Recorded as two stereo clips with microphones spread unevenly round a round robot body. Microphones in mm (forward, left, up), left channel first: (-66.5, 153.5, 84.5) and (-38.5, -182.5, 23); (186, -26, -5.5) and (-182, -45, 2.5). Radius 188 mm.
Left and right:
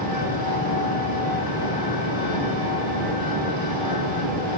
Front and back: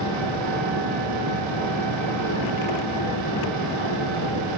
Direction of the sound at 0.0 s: 110° left.